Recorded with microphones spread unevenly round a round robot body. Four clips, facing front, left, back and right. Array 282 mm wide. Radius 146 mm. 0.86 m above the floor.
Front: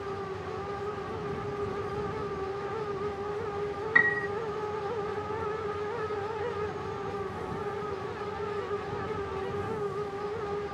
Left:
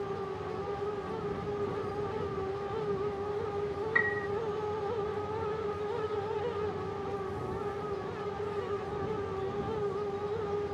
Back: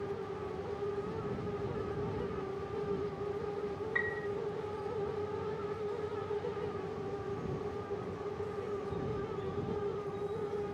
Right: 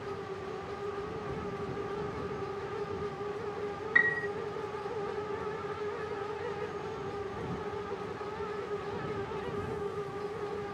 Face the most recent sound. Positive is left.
turn(degrees=-5)